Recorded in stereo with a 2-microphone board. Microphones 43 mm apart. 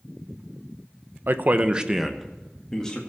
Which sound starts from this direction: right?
A man speaking, at 1.3 s.